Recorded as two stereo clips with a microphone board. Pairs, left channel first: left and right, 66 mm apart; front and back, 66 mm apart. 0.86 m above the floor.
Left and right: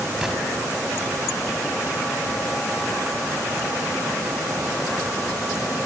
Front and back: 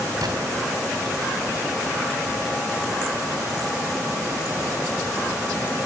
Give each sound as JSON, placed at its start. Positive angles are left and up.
{"t": 0.2, "sound": "a gunshot", "azimuth_deg": -170, "distance_m": 5.5}